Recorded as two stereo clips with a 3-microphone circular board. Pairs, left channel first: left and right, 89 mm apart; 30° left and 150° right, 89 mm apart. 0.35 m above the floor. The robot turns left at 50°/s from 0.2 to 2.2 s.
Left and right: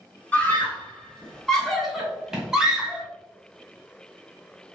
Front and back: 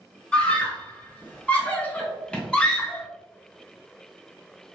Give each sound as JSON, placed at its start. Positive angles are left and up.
{"t": 0.3, "sound": "a scream", "azimuth_deg": 75, "distance_m": 0.9}